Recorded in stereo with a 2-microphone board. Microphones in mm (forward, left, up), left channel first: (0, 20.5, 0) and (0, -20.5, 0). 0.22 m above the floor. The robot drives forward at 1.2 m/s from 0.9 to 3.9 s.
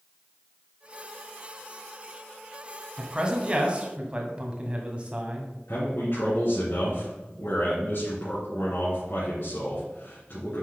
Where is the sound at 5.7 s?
65° left (ahead or behind), 3 m.